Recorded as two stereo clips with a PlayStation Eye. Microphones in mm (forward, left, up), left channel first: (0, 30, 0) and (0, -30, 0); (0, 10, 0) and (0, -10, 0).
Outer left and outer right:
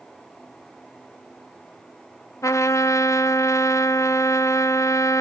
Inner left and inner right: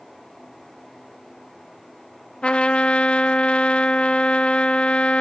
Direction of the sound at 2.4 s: 55° left (ahead or behind).